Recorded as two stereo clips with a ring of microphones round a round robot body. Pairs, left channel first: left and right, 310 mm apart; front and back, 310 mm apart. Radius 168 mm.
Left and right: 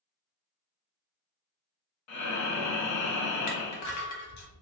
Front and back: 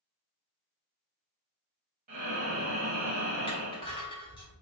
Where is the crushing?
75° left, 0.9 m.